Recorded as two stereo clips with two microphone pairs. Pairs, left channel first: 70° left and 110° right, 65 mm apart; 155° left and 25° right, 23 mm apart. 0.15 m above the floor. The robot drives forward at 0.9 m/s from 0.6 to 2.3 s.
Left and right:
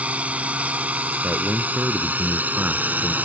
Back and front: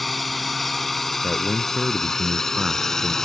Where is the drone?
120° right; by 3.2 s 150° right.